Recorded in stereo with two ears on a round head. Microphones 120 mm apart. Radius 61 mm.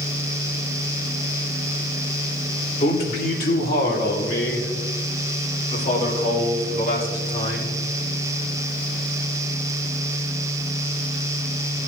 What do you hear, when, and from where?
2.8 s a man speaking: 55° left (ahead or behind), 2 m; by 7.8 s 50° left (ahead or behind), 5.5 m